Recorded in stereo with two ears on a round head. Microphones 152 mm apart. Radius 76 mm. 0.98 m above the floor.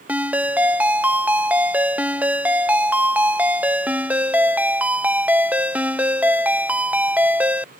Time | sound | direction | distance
0.1 | a ringtone | 10° right (ahead or behind) | ?